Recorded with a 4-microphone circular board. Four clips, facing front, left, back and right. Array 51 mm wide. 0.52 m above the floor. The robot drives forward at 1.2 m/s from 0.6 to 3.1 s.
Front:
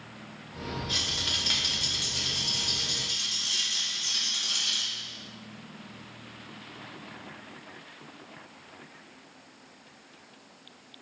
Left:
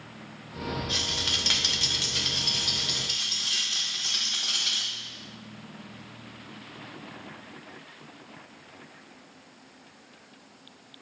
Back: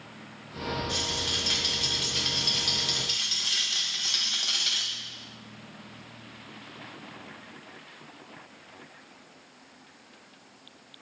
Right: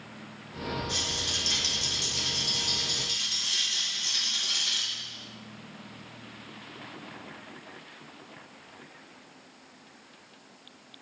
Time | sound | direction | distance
0.9 | a rattle | 50° left | 1.4 m